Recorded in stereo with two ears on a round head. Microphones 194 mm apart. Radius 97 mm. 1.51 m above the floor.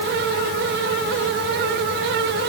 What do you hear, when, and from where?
Only background noise.